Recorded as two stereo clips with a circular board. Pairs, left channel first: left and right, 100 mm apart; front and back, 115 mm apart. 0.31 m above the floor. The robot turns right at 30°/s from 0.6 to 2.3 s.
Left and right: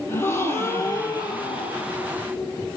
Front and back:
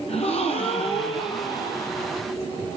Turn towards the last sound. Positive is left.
turn(degrees=75)